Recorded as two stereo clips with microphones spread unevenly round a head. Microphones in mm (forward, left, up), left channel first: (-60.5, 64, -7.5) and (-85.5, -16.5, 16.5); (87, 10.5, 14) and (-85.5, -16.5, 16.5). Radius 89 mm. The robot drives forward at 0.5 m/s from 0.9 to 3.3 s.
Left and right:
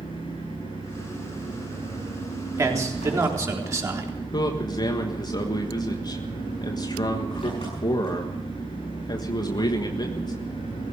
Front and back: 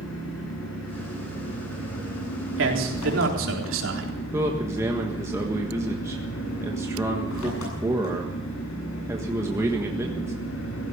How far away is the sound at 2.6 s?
About 3.5 m.